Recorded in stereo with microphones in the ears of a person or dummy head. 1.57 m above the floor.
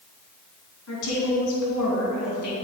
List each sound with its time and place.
0.9 s a woman speaking: 85° left, 3 m